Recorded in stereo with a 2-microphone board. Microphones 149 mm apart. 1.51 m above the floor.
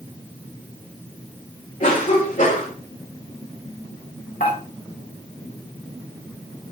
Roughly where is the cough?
Left.